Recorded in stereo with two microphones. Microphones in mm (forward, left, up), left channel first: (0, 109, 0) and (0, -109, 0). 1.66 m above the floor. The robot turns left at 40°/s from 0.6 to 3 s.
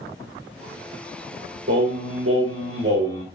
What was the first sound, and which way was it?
Singing, 65° right.